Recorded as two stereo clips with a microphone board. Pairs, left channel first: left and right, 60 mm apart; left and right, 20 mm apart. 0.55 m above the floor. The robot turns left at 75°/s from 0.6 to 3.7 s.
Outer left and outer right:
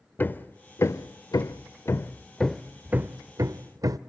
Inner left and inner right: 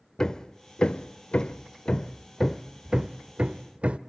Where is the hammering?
35° left (ahead or behind), 0.6 m; by 4.0 s 85° right, 0.6 m.